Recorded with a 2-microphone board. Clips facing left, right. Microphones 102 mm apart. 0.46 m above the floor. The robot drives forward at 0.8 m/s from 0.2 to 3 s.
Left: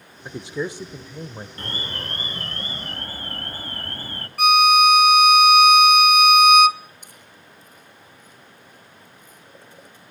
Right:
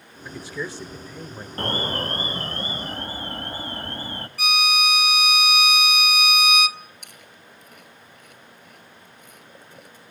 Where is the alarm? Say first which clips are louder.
Right 9 dB; 50° right (ahead or behind), 0.6 m; by 4.3 s 20° right (ahead or behind), 1.5 m.